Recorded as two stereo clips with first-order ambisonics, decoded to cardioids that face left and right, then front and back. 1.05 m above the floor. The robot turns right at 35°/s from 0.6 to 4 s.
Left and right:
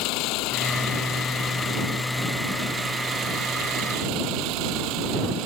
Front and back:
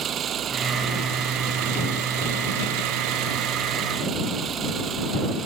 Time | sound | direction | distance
0.0 | an engine running | 120° left | ?